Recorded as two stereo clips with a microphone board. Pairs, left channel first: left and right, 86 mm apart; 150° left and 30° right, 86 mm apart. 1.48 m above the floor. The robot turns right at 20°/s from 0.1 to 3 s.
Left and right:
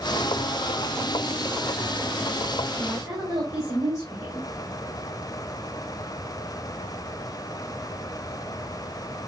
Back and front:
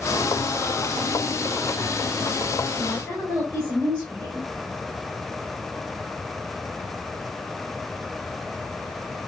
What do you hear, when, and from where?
2.8 s a woman speaking: 145° right, 6 m; by 4.5 s 140° right, 6 m